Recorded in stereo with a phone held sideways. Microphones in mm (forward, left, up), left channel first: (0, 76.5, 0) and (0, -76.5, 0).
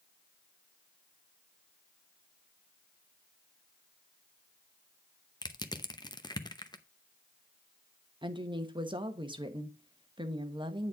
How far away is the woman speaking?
About 1.2 m.